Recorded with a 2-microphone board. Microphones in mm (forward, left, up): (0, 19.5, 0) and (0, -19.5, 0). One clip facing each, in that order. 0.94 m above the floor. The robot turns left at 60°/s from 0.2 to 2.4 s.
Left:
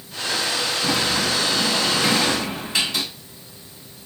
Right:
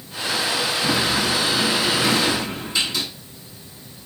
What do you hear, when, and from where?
0.8 s a sliding door: 165° left, 6.5 m; by 3.0 s 75° left, 6.5 m